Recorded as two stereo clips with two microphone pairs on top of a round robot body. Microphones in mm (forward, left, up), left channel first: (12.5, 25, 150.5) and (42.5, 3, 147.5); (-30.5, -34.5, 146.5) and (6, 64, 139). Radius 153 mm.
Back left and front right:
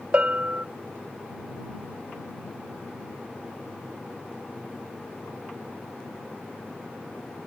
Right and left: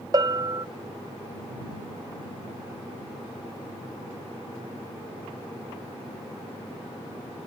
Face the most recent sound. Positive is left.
turn(degrees=15)